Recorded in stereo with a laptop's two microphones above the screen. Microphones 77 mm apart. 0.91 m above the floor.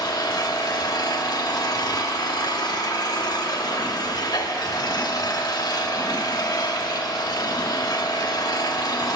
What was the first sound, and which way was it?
An engine running, 60° left (ahead or behind).